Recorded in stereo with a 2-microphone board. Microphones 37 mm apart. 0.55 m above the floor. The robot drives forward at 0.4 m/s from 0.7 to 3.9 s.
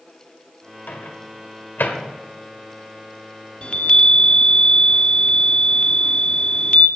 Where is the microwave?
60° left (ahead or behind), 1.7 m; by 2.0 s 70° left (ahead or behind), 1.5 m.